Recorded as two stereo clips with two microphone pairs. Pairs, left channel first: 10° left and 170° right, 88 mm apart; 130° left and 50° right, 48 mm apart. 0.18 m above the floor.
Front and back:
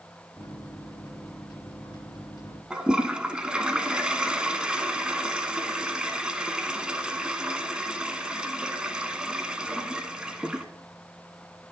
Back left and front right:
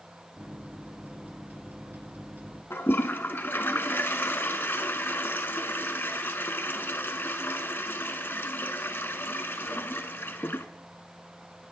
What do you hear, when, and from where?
0.4 s a microwave: 20° right, 2 m
2.7 s a toilet flushing: 120° left, 0.6 m